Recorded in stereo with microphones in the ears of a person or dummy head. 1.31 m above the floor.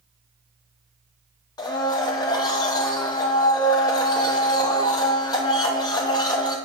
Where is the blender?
25° left (ahead or behind), 0.9 m.